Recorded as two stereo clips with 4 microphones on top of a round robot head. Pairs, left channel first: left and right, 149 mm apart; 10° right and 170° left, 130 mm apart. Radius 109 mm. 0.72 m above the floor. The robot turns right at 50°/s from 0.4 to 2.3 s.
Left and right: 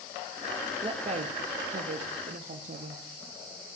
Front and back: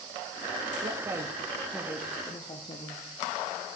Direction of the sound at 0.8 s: 140° right.